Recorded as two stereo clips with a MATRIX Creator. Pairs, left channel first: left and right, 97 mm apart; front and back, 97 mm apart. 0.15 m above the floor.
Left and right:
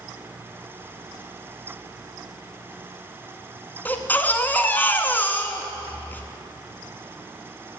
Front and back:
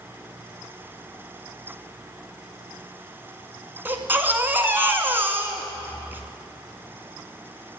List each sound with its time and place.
3.9 s a baby crying: 135° left, 0.7 m